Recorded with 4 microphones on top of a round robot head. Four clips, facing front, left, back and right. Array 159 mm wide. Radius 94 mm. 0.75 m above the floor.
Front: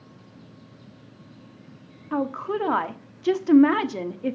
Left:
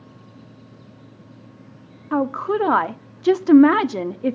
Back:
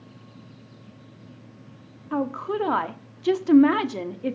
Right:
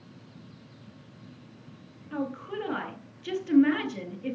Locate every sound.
2.1 s a woman speaking: 90° left, 1.2 m